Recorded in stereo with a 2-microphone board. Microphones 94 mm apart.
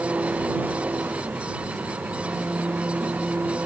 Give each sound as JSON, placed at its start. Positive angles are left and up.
{"t": 0.0, "sound": "an engine running", "side_deg": -15}